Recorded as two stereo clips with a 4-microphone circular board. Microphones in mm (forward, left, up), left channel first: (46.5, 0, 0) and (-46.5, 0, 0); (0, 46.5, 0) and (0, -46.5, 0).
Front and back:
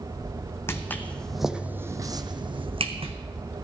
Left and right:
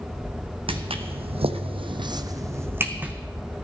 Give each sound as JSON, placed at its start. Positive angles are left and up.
{"t": 0.7, "sound": "footsteps", "azimuth_deg": -65, "distance_m": 0.9}